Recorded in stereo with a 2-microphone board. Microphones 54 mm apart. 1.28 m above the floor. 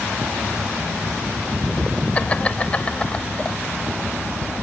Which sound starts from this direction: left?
Laughter, at 2.1 s.